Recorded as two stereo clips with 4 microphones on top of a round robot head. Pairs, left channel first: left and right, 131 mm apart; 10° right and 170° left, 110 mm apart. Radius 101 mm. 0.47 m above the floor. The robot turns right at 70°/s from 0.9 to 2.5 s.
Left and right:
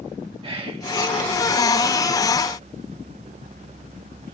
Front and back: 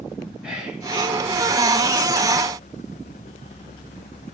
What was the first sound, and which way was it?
Whispering, 110° right.